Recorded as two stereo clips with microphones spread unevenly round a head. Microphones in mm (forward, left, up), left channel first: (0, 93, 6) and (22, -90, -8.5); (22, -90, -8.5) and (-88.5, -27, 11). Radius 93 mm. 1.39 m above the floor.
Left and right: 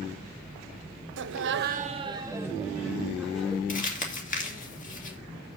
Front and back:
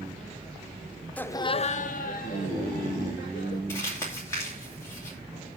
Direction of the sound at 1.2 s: 105° right.